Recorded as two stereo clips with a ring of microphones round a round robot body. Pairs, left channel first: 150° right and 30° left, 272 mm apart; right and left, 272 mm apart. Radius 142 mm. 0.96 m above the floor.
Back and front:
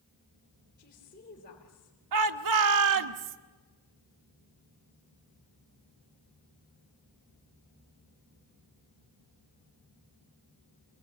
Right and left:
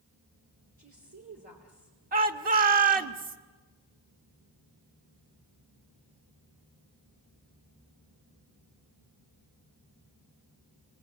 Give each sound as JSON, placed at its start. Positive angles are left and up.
{"t": 0.8, "sound": "a woman speaking", "azimuth_deg": 150, "distance_m": 4.0}
{"t": 2.1, "sound": "a shout", "azimuth_deg": 30, "distance_m": 1.5}